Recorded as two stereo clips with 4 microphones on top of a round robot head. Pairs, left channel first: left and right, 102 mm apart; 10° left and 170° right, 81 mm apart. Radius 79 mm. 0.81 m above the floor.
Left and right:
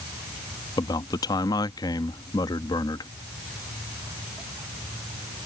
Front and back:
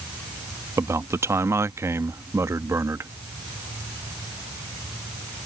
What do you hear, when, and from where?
0.8 s a man speaking: 140° left